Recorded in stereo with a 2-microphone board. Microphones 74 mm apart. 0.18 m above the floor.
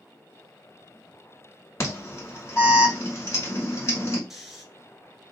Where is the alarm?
40° left (ahead or behind), 1.5 m.